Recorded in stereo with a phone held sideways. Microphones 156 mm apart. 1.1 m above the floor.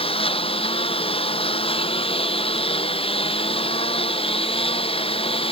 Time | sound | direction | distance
0.0 | a lawn mower | 35° left (ahead or behind) | ?